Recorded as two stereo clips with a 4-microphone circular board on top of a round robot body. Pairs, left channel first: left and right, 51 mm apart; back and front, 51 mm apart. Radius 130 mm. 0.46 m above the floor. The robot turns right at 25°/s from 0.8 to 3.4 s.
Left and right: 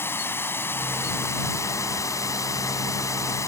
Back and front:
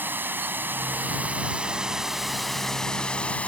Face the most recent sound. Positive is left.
turn(degrees=115)